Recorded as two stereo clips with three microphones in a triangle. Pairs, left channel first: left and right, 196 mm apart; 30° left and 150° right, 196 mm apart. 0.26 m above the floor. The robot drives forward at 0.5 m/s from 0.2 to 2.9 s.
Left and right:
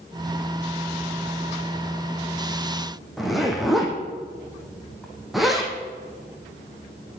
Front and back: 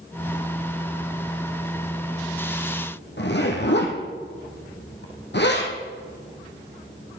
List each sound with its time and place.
3.2 s a zipper: straight ahead, 2.5 m